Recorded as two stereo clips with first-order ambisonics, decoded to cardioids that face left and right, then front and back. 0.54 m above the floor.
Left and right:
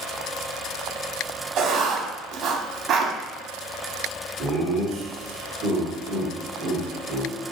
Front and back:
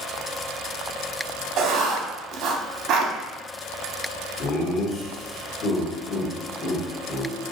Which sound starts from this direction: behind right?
Writing, at 1.6 s.